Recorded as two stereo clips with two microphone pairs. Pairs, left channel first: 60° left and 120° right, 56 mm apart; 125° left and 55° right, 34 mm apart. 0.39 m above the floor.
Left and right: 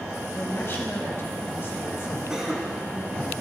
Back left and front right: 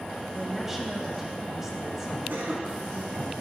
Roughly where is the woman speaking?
Ahead.